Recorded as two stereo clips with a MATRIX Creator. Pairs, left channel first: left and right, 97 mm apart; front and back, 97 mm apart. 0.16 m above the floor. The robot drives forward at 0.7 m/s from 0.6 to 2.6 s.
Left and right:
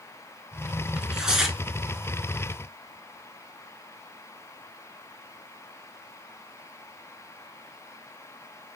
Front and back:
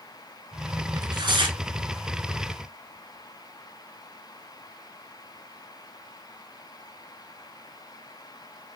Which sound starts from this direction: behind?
Tearing paper, at 1.0 s.